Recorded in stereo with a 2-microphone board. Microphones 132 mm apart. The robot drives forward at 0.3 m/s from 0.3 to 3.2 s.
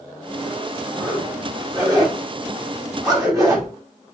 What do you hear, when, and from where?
1.0 s a zipper: 30° right (ahead or behind), 4 m; by 3.7 s 25° right (ahead or behind), 4.5 m